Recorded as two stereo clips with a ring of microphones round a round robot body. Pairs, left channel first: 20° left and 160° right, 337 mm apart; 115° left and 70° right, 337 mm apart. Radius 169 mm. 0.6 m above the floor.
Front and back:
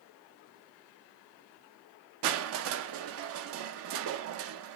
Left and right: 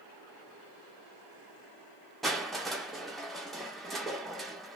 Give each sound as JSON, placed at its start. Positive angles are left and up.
{"t": 2.2, "sound": "crushing", "azimuth_deg": -160, "distance_m": 0.6}